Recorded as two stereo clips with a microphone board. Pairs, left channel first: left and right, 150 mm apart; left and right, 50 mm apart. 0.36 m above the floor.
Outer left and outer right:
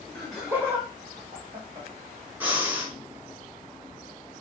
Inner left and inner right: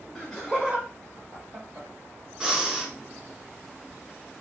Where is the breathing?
10° right (ahead or behind), 0.7 m.